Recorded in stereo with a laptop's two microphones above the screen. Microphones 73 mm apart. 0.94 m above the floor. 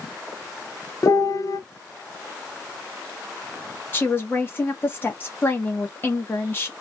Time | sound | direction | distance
1.0 | a piano | 50° left (ahead or behind) | 0.6 m
3.9 | a woman speaking | 30° left (ahead or behind) | 1.2 m